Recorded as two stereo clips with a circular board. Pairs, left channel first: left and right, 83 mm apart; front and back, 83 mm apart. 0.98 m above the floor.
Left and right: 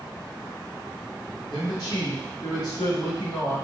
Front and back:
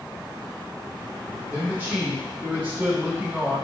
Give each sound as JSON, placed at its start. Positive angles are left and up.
{"t": 1.5, "sound": "a man speaking", "azimuth_deg": 115, "distance_m": 1.3}